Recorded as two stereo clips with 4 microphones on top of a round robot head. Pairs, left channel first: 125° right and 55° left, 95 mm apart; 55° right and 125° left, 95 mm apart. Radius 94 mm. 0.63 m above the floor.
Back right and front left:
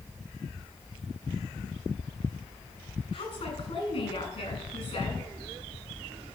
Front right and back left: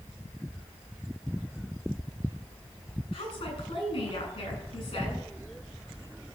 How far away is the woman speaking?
About 8 m.